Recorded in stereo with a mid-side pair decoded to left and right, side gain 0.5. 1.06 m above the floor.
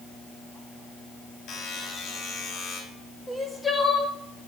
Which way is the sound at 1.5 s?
60° left.